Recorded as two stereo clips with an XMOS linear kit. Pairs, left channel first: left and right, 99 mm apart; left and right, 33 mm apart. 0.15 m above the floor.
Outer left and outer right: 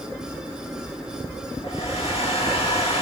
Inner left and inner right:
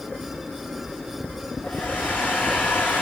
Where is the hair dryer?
75° left (ahead or behind), 6.5 m.